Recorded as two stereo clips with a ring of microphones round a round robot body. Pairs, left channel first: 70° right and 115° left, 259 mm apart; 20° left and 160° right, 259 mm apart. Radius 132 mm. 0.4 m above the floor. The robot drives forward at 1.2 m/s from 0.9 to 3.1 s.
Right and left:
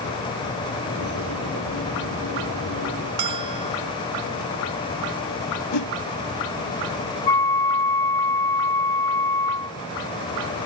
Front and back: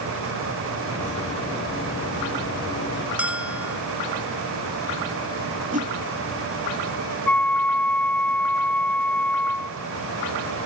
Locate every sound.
3.2 s a bell: 115° left
5.7 s a whoosh: 95° right
7.3 s a flute: 65° right